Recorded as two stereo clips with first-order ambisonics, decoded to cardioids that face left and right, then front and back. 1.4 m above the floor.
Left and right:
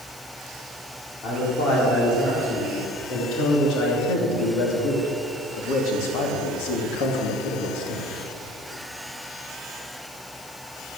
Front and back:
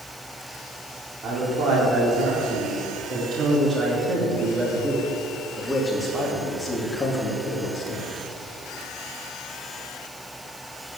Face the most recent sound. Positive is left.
turn(degrees=60)